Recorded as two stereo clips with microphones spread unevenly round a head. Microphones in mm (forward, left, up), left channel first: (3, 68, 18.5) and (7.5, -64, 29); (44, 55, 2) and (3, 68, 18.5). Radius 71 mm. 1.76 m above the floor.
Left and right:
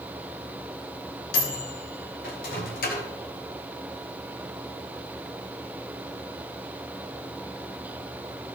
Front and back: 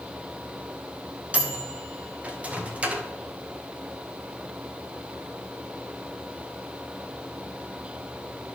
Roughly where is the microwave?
Behind left.